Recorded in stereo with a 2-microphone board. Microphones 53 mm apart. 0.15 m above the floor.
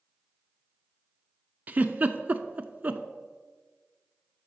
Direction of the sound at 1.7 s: 30° right (ahead or behind).